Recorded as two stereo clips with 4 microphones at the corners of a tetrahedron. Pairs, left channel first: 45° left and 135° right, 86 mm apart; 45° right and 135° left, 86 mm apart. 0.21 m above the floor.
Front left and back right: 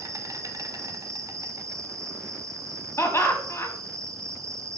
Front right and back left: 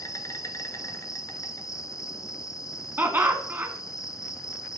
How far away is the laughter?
About 1.2 m.